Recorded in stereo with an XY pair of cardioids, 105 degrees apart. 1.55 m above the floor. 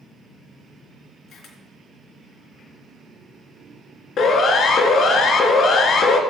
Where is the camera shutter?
70° left, 3.5 m.